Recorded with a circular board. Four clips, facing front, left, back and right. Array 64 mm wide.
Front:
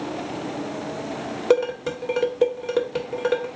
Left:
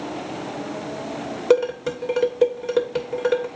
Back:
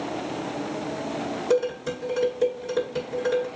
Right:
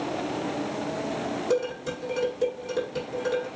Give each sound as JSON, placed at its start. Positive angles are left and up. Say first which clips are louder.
{"t": 1.5, "sound": "dishes clattering", "louder": "left 10 dB, front 4 dB", "azimuth_deg": 50, "distance_m": 1.6}